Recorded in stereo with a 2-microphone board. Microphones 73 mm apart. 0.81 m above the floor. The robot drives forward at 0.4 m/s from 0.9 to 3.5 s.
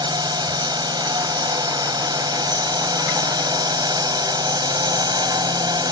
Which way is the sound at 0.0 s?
75° right (ahead or behind).